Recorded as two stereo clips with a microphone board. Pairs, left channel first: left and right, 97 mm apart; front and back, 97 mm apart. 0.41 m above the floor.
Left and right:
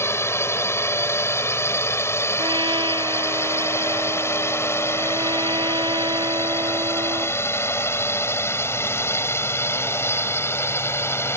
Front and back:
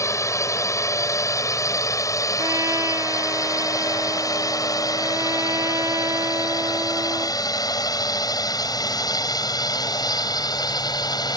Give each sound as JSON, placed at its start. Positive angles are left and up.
{"t": 0.0, "sound": "a drone", "azimuth_deg": 40}
{"t": 2.4, "sound": "a trumpet", "azimuth_deg": -125}